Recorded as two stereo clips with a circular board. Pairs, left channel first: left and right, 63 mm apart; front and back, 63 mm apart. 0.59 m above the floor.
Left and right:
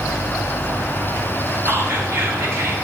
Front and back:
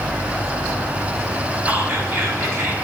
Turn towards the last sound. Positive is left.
turn(degrees=-130)